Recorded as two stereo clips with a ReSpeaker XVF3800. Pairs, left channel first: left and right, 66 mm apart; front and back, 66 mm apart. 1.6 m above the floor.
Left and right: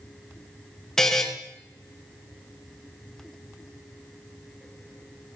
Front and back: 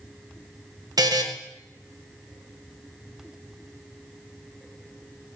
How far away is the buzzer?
About 1.5 m.